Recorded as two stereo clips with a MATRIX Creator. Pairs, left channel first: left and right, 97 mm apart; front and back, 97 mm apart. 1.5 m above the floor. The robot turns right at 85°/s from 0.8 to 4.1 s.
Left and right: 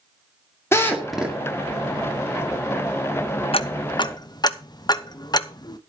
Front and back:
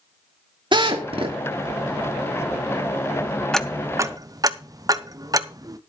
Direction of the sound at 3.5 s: 85° left.